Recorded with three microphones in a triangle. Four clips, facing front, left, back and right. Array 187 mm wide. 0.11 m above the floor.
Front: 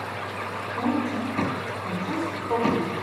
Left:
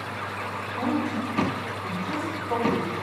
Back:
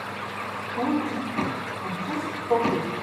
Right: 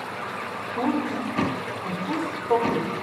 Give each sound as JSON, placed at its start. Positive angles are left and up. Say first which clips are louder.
{"t": 0.7, "sound": "a woman speaking", "louder": "right 2 dB, even", "azimuth_deg": -85, "distance_m": 6.0}